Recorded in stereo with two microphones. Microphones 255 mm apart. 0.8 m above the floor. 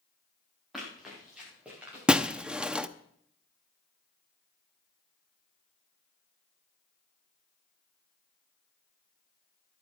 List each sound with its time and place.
0.7 s running footsteps: centre (ahead or behind), 7 m; by 2.7 s 5° right (ahead or behind), 9.5 m
2.1 s breaking glass: 5° right (ahead or behind), 0.6 m